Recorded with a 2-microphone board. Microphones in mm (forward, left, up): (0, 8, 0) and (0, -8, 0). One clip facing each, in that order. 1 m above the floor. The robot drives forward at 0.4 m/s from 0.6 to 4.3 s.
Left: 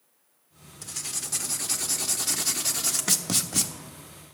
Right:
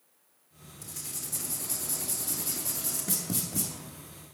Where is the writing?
40° left (ahead or behind), 1.2 m; by 3.7 s 60° left (ahead or behind), 0.9 m.